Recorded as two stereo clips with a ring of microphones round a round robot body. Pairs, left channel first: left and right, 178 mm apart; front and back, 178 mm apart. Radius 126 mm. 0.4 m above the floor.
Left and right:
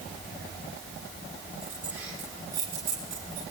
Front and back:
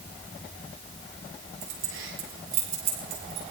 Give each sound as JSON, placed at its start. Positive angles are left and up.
{"t": 1.6, "sound": "keys jangling", "azimuth_deg": -175, "distance_m": 6.5}